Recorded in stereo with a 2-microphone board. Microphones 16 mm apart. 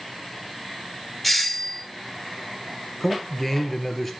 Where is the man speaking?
10° left (ahead or behind), 2 m.